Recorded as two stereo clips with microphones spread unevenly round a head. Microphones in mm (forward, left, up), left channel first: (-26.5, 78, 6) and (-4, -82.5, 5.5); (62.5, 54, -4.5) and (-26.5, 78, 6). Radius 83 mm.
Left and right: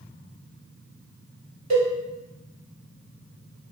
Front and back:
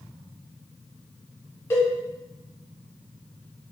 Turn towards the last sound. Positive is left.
turn(degrees=-75)